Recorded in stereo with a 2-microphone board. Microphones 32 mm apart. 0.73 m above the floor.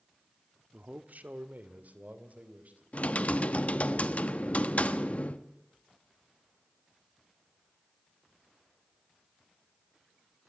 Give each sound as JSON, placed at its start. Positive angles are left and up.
{"t": 0.7, "sound": "a man speaking", "side_deg": -60, "distance_m": 1.3}
{"t": 2.9, "sound": "typing on a keyboard", "side_deg": 45, "distance_m": 1.1}